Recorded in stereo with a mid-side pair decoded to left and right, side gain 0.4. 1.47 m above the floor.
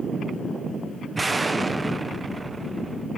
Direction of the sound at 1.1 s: 25° right.